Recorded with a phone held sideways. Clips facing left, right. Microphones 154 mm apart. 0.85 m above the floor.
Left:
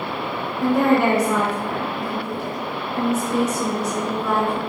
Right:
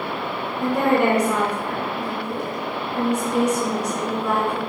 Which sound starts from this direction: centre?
A woman speaking, at 0.6 s.